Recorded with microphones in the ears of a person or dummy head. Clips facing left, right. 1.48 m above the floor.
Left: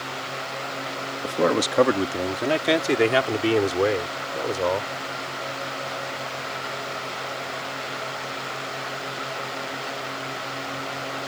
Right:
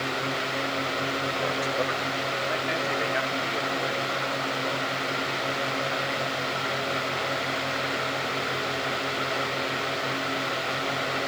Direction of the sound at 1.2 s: 85° left.